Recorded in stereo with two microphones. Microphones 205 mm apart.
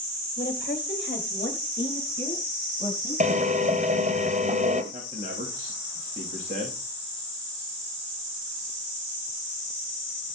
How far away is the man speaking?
About 7.5 m.